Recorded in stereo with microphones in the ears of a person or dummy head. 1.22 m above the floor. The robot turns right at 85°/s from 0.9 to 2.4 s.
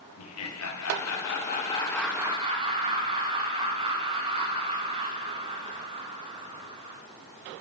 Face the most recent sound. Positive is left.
turn(degrees=-150)